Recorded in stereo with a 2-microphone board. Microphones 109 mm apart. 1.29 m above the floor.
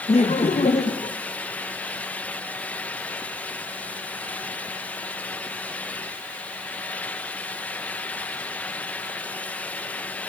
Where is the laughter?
75° left (ahead or behind), 1.6 m; by 1.1 s 65° left (ahead or behind), 1.1 m.